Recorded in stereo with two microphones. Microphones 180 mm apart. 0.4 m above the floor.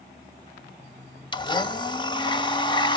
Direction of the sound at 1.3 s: 25° left (ahead or behind).